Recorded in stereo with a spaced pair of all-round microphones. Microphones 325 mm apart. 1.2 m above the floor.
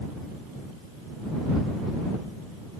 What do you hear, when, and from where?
Only background noise.